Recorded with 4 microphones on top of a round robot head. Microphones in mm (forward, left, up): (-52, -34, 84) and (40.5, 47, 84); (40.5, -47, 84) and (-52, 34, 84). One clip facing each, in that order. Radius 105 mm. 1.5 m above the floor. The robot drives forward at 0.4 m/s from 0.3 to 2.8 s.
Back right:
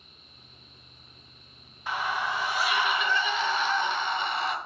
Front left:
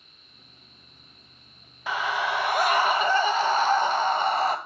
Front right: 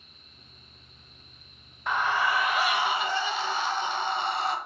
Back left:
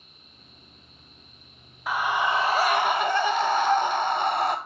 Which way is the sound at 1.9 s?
55° left.